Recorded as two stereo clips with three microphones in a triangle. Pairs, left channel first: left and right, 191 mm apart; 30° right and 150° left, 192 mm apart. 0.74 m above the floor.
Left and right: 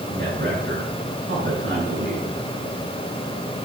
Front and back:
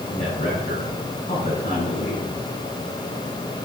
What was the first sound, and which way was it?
A man speaking, 85° right.